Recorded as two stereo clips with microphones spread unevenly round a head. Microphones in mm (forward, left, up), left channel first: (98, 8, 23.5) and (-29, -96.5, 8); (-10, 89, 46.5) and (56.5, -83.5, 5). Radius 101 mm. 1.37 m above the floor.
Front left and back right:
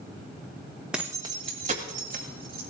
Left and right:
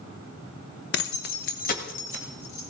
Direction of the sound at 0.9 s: 130° left.